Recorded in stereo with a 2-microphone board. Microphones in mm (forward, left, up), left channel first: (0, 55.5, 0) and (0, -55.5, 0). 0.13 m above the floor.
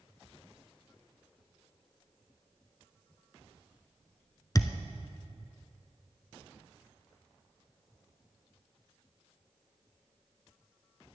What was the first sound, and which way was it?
A thud, 35° left (ahead or behind).